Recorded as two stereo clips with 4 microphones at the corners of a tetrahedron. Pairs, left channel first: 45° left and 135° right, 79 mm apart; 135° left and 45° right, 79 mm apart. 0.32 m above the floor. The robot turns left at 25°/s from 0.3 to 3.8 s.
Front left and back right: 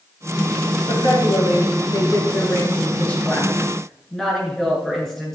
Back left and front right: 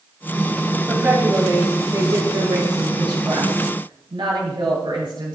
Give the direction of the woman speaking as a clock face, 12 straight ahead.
11 o'clock.